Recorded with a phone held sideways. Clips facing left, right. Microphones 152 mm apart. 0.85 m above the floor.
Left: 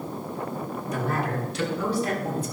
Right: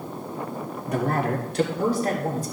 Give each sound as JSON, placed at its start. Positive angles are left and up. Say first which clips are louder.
{"t": 0.9, "sound": "a man speaking", "louder": "right 5 dB", "side_deg": -60, "distance_m": 2.0}